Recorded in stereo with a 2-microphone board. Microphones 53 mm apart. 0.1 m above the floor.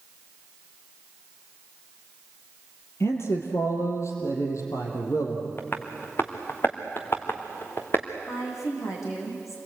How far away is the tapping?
About 2 m.